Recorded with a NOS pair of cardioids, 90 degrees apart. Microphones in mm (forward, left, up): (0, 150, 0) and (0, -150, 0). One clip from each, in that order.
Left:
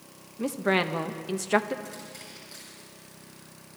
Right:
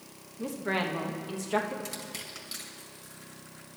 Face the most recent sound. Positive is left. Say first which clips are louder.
# right 2 dB
turn(degrees=-70)